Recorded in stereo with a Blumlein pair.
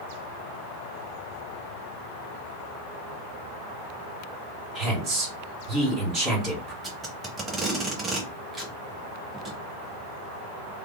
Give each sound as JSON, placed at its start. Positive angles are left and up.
{"t": 4.8, "sound": "a woman speaking", "azimuth_deg": -30, "distance_m": 2.0}
{"t": 6.8, "sound": "tape being pulled", "azimuth_deg": -15, "distance_m": 0.9}